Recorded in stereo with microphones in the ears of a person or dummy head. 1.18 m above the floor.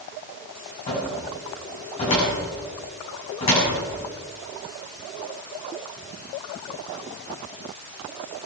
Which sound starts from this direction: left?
A cupboard door, at 0.9 s.